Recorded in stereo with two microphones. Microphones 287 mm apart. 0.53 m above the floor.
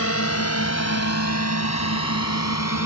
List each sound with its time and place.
0.0 s a drone: 60° left (ahead or behind); by 2.9 s 75° left (ahead or behind)